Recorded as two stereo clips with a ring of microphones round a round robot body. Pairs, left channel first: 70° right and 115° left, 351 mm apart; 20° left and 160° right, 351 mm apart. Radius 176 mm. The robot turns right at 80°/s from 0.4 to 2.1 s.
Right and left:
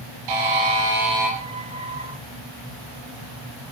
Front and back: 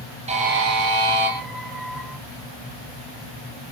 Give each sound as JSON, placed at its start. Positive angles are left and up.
{"t": 0.3, "sound": "a buzzer", "azimuth_deg": 130, "distance_m": 5.5}